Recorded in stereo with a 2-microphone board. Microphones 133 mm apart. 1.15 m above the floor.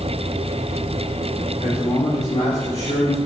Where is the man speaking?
60° left (ahead or behind), 4 m; by 3.2 s 55° left (ahead or behind), 3 m.